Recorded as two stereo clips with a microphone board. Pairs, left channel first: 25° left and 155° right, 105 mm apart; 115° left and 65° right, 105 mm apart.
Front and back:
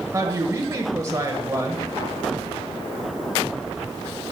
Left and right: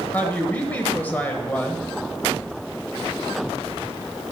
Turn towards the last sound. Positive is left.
turn(degrees=170)